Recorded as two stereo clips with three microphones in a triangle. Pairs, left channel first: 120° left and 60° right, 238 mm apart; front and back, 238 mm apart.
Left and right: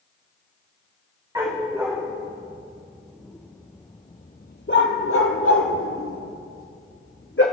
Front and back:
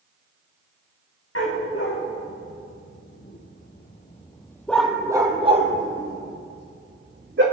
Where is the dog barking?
15° left, 4 m; by 7.4 s 150° left, 3 m.